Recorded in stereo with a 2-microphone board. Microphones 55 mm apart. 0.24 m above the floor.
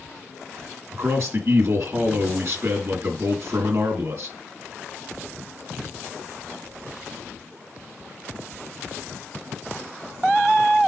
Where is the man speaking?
55° right (ahead or behind), 3 m.